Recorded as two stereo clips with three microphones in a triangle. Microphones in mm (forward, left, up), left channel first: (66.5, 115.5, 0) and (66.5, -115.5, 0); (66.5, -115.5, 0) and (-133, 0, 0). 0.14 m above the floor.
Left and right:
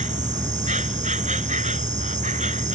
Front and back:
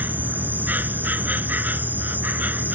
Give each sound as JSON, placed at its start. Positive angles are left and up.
{"t": 0.0, "sound": "an insect", "azimuth_deg": -130}